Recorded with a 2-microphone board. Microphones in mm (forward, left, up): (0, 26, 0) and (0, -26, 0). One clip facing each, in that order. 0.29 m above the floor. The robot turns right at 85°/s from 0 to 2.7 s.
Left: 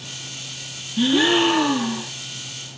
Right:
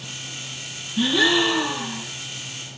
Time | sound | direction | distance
1.0 | a gasp | 5° left | 2.5 m